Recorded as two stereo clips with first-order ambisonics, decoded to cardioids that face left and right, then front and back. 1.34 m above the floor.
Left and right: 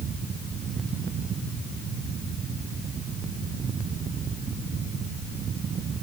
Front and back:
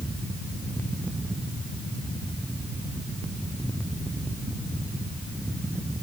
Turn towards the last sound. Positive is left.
No sound to turn to.